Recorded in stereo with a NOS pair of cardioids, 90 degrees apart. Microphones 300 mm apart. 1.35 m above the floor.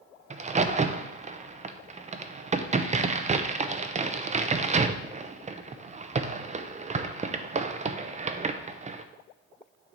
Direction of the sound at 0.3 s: 25° right.